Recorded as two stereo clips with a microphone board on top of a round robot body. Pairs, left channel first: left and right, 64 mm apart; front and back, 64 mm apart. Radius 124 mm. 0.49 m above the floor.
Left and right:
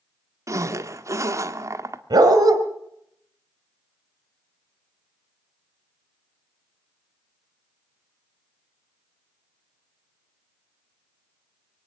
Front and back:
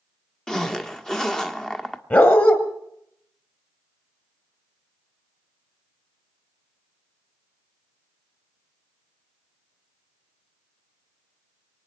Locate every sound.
0.5 s a zipper: 80° right, 1.4 m
2.1 s a dog barking: 65° right, 2 m